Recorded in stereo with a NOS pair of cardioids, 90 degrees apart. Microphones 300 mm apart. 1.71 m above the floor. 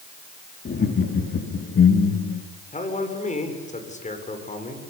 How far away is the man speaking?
About 7 m.